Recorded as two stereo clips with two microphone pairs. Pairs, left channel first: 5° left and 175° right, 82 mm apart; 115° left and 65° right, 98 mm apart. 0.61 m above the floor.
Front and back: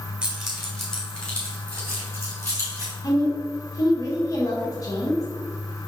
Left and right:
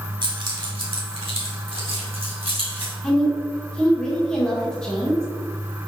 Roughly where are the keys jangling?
Right.